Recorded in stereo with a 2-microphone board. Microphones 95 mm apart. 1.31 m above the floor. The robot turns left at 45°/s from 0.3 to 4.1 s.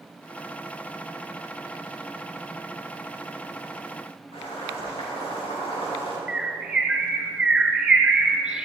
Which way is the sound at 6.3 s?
5° right (ahead or behind).